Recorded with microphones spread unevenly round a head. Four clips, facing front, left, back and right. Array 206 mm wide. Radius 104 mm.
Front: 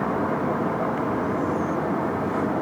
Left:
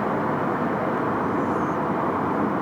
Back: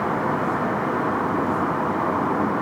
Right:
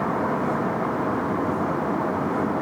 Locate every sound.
Only background noise.